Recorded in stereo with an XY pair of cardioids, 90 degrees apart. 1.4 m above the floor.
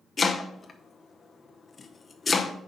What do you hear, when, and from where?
0.2 s chopping: 30° left, 0.7 m